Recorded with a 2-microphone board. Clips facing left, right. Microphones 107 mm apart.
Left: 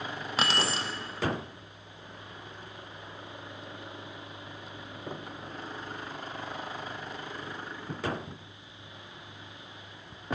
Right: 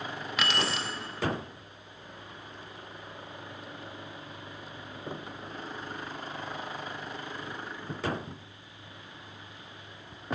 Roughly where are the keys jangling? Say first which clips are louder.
Left 1 dB; left.